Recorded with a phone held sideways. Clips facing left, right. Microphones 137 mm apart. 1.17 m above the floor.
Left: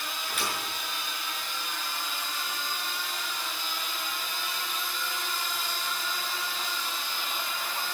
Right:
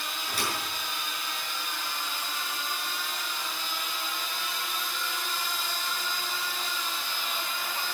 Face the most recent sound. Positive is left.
turn(degrees=-40)  # may be behind; listen again after turning